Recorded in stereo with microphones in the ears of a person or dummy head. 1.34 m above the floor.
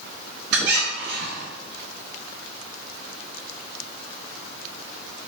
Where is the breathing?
No breathing in this recording.